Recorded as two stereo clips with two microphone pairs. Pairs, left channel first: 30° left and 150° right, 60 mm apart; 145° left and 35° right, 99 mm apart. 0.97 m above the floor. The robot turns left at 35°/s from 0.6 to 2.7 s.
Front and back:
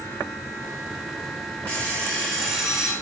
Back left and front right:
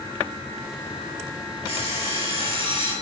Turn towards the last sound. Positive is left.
turn(degrees=-70)